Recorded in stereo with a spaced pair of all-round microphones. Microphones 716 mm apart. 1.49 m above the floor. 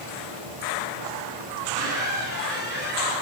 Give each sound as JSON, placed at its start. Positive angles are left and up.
{"t": 1.6, "sound": "a squeak", "side_deg": 15, "distance_m": 7.0}